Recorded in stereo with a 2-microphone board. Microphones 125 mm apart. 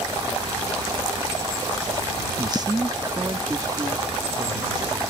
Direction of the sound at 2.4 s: 30° right (ahead or behind).